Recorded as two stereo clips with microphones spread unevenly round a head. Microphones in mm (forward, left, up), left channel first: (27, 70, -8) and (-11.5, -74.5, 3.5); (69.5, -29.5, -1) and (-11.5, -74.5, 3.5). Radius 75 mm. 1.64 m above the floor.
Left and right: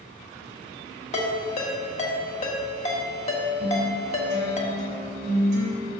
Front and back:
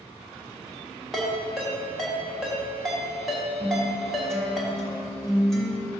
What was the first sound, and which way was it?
A ringtone, 120° left.